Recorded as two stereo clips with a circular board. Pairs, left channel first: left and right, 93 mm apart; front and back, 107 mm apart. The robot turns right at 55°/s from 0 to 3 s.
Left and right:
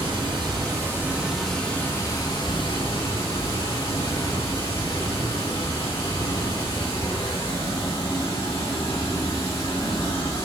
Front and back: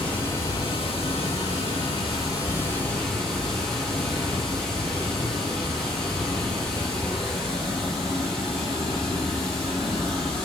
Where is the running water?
80° right, 2.5 m; by 10.5 s 85° left, 2.5 m.